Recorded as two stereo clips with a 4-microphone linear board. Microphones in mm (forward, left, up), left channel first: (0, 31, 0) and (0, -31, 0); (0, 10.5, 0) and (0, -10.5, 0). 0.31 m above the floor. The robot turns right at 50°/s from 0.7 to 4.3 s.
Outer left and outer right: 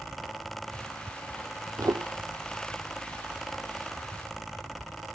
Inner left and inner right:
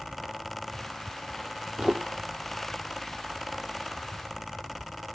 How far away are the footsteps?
About 0.7 m.